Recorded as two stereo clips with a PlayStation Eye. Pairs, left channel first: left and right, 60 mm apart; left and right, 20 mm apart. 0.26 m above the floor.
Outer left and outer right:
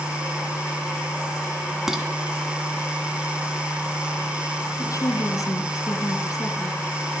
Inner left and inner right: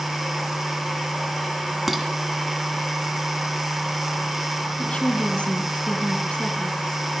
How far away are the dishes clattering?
About 1.7 m.